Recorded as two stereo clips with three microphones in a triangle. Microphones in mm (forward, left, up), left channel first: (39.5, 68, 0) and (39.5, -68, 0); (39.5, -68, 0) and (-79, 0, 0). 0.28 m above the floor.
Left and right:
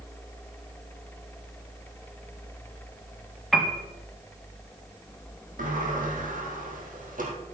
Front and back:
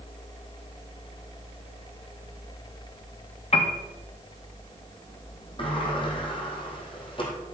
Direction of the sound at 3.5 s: Straight ahead.